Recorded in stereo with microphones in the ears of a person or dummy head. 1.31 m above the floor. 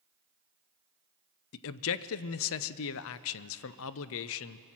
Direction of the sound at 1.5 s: 70° left (ahead or behind).